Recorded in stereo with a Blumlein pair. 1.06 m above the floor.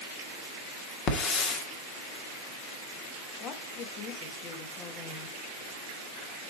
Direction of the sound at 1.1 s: 35° left.